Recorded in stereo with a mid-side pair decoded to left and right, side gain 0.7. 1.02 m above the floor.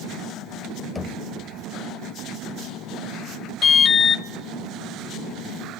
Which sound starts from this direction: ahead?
Knocking, at 0.9 s.